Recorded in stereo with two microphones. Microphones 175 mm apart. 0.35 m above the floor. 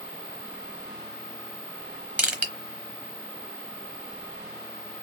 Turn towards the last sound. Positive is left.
turn(degrees=-10)  # may be behind; listen again after turning